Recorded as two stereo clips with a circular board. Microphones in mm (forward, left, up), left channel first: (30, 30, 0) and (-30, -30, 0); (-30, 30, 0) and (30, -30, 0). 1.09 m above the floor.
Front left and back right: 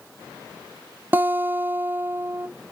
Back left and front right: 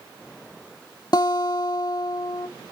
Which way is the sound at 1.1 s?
160° left.